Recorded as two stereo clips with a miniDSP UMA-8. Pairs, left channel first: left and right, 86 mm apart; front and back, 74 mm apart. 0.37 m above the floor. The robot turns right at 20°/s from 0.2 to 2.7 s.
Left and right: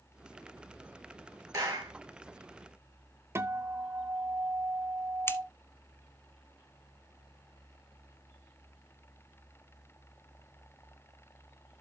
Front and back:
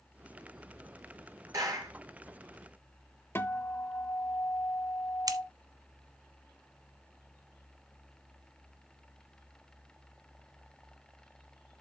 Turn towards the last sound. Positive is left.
turn(degrees=150)